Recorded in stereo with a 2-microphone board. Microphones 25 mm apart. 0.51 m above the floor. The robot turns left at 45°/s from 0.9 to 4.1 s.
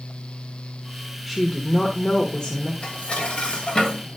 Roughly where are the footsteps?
I don't hear footsteps.